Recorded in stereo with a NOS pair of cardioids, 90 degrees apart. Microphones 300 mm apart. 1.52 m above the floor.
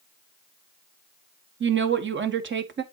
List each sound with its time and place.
1.6 s a woman speaking: 40° right, 1.5 m